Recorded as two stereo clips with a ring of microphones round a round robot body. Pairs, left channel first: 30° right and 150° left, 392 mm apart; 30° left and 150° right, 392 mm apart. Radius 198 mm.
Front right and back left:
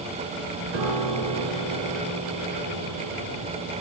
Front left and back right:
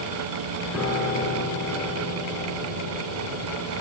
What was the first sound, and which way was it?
A piano, 120° left.